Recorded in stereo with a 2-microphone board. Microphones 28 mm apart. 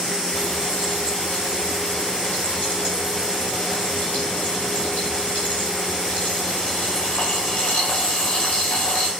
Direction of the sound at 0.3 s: 60° left (ahead or behind).